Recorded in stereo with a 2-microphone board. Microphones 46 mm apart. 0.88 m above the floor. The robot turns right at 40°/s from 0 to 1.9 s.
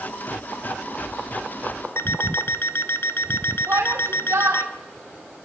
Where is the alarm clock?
60° left (ahead or behind), 0.8 m.